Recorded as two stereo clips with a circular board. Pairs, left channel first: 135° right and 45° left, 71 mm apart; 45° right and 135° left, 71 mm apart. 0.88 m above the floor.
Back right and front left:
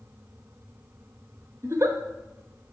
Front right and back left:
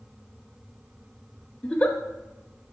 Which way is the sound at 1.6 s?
20° left.